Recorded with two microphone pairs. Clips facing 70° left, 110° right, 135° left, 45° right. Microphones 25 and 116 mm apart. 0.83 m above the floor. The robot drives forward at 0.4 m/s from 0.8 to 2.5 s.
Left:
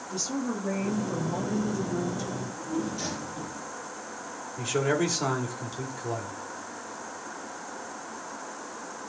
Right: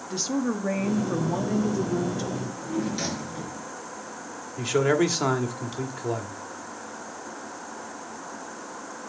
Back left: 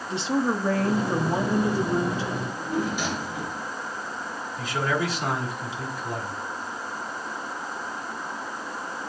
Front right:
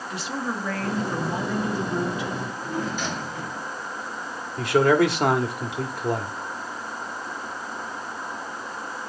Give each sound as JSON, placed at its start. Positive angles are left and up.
{"t": 0.1, "sound": "a woman speaking", "azimuth_deg": -165, "distance_m": 1.3}
{"t": 2.3, "sound": "a drawer", "azimuth_deg": -145, "distance_m": 4.5}
{"t": 4.6, "sound": "a man speaking", "azimuth_deg": -55, "distance_m": 1.6}